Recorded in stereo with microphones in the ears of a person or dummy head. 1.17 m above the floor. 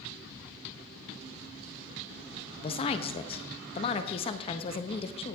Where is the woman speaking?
25° left (ahead or behind), 0.6 m.